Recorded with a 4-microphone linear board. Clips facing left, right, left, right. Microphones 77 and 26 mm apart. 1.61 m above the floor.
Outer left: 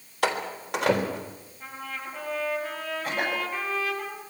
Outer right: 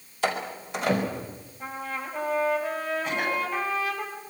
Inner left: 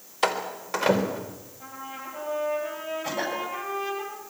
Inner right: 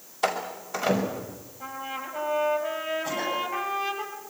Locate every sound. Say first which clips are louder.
0.2 s a door slam: outer left 1 dB, inner left 1 dB; 70° left (ahead or behind), 3.5 m
1.6 s a trumpet: outer right 4 dB, inner right 4 dB; 20° right (ahead or behind), 8.5 m
3.0 s a cough: outer left 2 dB, inner right 1 dB; 40° left (ahead or behind), 9.5 m